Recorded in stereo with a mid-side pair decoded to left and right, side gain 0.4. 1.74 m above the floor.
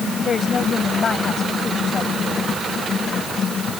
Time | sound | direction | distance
0.2 | a woman speaking | 50° left | ?